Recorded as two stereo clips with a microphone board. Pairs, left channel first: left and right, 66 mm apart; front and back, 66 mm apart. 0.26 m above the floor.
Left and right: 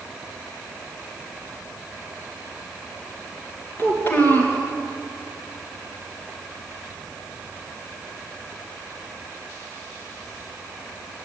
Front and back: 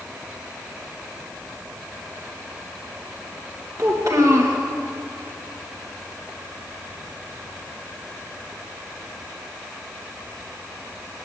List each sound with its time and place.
3.8 s a child speaking: 145° left, 2 m